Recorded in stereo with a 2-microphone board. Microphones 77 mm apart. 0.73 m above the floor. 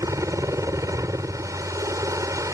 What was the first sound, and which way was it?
A helicopter, 45° right (ahead or behind).